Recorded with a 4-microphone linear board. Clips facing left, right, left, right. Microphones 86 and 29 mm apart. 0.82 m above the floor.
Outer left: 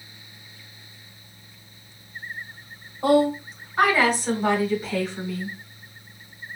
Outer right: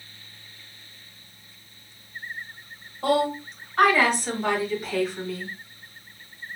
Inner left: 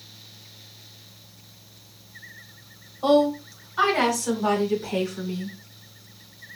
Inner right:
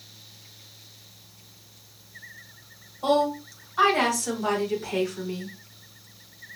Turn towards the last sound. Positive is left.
turn(degrees=-5)  # may be behind; listen again after turning